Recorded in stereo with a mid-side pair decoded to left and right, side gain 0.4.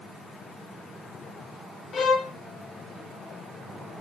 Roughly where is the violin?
Ahead left.